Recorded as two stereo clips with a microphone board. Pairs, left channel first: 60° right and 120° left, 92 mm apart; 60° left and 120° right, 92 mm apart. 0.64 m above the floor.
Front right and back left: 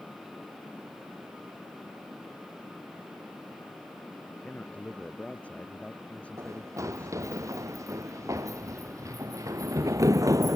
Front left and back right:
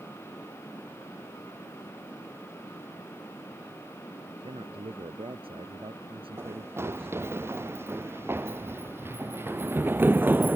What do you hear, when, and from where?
4.3 s a man speaking: 135° right
6.4 s running footsteps: 175° left; by 10.6 s 170° left